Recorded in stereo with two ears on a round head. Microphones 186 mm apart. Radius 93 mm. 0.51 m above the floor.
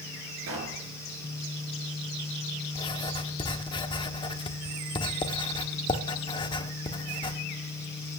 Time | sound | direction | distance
0.5 | a pop | 75° right (ahead or behind) | 4 m
2.8 | writing | 25° left (ahead or behind) | 0.9 m